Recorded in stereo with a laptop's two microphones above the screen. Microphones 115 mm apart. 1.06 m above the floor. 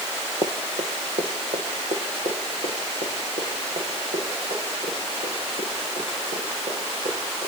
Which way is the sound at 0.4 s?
60° right (ahead or behind).